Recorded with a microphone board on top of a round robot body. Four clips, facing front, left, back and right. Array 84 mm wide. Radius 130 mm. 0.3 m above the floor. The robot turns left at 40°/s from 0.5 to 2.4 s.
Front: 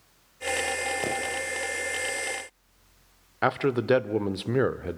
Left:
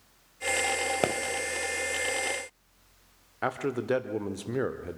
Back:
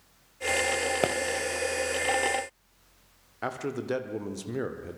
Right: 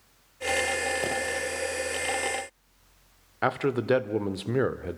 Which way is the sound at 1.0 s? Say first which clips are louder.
Left 7 dB, back 4 dB; 130° left.